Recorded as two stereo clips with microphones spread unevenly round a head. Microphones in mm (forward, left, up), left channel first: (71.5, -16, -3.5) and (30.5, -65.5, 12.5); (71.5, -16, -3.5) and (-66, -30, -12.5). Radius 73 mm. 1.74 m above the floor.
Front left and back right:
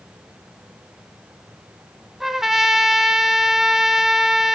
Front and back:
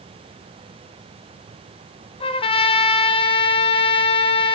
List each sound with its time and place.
2.2 s a trumpet: 45° right, 1.3 m